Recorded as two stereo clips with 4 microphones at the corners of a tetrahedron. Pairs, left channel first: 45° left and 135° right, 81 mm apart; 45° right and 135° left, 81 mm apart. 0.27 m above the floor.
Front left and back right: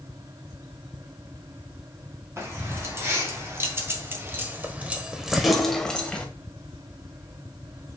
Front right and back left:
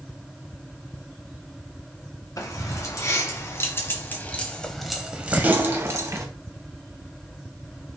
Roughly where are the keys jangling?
Right.